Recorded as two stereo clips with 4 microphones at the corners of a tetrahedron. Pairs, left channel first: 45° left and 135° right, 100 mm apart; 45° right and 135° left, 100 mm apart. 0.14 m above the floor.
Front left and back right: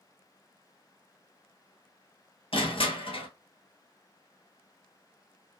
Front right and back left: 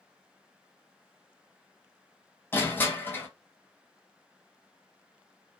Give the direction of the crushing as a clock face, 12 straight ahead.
11 o'clock.